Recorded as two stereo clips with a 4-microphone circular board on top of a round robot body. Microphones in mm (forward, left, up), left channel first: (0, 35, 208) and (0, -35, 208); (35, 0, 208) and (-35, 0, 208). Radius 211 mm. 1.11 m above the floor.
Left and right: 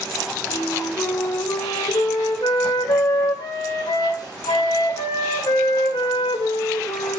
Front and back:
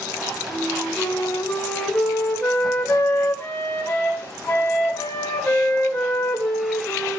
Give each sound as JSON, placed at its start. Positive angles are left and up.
{"t": 0.5, "sound": "a flute", "azimuth_deg": 65, "distance_m": 1.9}